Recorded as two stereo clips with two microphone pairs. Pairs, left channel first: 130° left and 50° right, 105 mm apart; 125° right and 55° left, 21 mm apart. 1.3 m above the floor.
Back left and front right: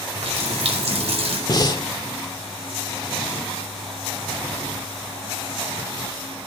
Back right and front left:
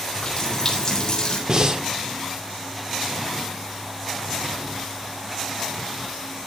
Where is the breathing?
85° left, 1.2 m.